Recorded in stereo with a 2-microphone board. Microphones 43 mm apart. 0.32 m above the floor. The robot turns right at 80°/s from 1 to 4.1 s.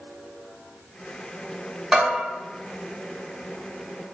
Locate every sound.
1.9 s a bell: 10° right (ahead or behind), 1.9 m; by 2.2 s 25° right (ahead or behind), 1.9 m